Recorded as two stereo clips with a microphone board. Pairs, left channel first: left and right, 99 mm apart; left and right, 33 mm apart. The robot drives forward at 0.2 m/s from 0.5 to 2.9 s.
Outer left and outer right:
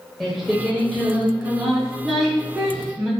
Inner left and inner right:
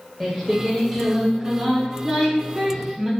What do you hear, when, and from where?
0.2 s singing: centre (ahead or behind), 1.3 m